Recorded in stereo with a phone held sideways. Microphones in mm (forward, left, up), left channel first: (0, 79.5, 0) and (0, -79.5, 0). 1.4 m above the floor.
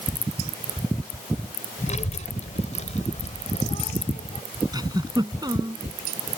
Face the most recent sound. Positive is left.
turn(degrees=-25)  # may be behind; listen again after turning